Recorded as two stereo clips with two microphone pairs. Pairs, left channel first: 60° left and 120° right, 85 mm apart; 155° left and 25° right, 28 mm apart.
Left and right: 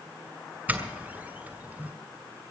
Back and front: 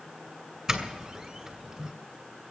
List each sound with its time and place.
0.7 s a doorbell: 75° right, 2 m